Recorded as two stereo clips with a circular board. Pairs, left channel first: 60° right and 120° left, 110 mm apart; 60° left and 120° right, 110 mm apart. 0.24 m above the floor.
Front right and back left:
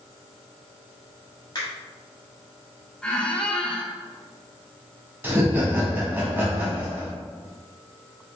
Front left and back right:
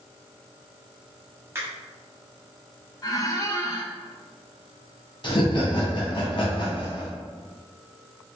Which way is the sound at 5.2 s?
55° left.